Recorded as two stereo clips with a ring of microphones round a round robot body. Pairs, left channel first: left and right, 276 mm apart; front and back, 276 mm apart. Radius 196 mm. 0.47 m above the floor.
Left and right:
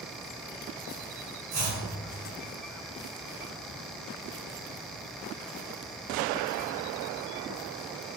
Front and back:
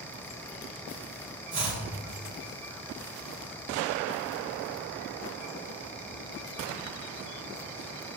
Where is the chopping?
115° right, 2.0 m.